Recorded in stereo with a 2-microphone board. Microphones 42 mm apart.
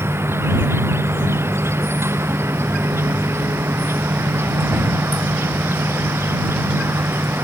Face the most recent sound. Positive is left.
turn(degrees=-80)